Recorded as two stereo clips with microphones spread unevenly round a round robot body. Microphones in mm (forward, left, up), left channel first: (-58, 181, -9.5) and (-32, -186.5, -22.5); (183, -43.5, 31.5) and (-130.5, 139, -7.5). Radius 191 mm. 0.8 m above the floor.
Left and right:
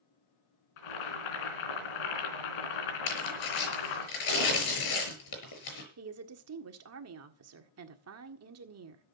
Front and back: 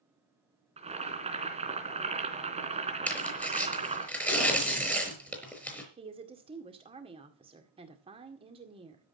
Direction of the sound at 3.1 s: 55° left.